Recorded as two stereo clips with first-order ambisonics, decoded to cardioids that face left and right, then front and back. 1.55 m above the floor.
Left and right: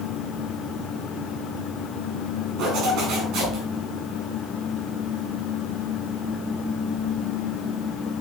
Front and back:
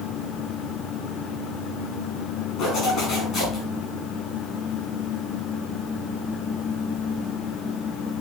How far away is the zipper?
About 5 m.